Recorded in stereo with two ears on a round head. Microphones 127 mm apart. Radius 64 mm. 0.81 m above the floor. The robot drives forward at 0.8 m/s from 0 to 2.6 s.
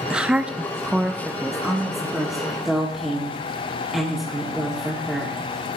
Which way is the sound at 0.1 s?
5° right (ahead or behind).